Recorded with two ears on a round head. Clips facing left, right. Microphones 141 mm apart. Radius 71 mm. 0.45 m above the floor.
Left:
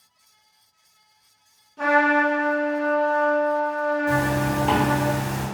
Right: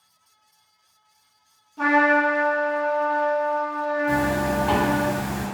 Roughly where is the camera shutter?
I don't hear a camera shutter.